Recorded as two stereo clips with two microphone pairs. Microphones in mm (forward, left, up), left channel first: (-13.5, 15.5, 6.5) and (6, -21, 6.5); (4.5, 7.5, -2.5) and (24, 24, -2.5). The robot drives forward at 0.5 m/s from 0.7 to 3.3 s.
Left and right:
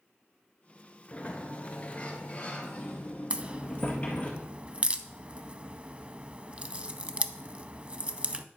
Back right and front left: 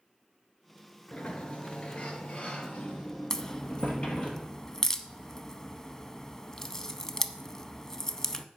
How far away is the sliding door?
About 1.3 m.